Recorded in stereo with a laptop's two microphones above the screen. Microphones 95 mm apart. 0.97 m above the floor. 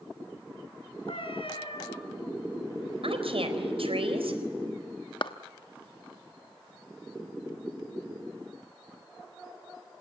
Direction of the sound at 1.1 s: 70° left (ahead or behind).